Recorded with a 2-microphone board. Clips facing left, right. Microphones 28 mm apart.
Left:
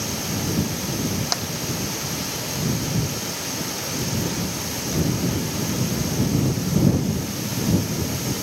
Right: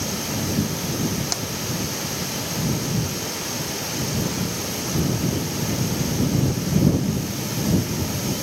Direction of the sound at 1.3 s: 30° left (ahead or behind).